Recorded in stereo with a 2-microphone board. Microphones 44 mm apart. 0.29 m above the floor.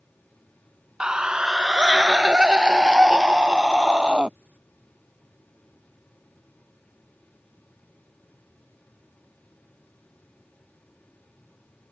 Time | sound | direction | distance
1.0 | a scream | 20° right (ahead or behind) | ?